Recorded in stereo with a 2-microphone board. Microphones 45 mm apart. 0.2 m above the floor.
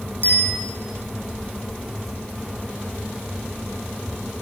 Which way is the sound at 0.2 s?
50° right (ahead or behind).